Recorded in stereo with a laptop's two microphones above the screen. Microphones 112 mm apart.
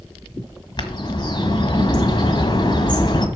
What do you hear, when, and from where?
0.8 s a bird: 40° left (ahead or behind), 1.7 m